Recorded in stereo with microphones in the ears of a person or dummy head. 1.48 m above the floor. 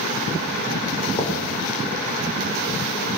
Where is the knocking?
30° left (ahead or behind), 3.5 m.